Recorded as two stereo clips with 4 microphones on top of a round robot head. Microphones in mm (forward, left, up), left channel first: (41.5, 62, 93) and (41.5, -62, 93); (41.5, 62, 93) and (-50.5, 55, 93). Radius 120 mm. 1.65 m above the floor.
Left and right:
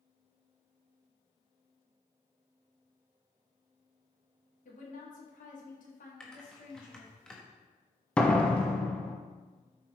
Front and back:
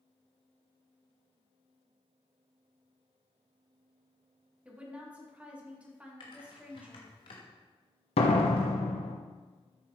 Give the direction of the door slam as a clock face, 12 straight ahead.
12 o'clock.